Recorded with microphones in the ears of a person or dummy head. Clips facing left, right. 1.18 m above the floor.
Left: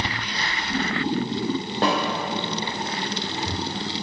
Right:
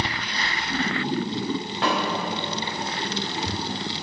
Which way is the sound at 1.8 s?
35° left (ahead or behind).